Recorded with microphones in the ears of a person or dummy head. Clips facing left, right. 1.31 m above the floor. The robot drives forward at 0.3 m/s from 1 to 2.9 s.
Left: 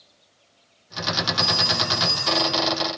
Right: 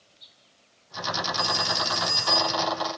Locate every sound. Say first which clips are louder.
1.4 s a phone ringing: left 3 dB; 40° right (ahead or behind), 7.5 m; by 2.7 s 35° right (ahead or behind), 7.5 m